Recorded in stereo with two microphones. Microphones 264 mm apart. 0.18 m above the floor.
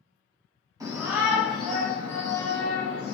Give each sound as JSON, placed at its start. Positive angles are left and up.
{"t": 0.8, "sound": "a shout", "side_deg": -15, "distance_m": 1.0}